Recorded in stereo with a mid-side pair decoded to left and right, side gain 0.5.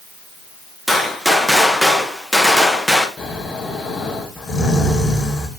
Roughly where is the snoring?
Ahead left.